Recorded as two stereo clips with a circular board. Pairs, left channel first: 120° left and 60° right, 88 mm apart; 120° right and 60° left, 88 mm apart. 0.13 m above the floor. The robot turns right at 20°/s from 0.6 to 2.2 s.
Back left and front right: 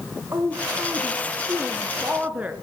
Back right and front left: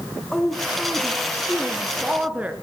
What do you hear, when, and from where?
0.3 s a woman speaking: 35° right, 1.7 m; by 2.5 s straight ahead, 1.7 m